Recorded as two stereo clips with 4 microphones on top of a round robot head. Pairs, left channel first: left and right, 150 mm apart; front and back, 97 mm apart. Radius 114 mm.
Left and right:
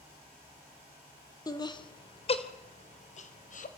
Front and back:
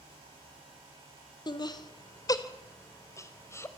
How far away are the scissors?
I don't hear scissors.